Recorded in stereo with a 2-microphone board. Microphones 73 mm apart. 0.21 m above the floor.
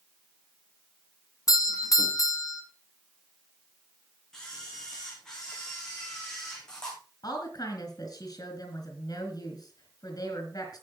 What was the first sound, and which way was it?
A doorbell, 50° left (ahead or behind).